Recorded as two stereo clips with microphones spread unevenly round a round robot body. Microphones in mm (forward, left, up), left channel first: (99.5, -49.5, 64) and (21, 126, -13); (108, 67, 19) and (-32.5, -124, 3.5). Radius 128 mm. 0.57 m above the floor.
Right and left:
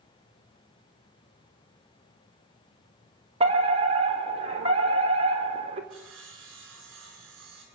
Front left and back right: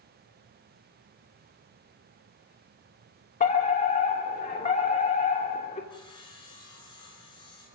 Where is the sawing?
130° left, 5.5 m.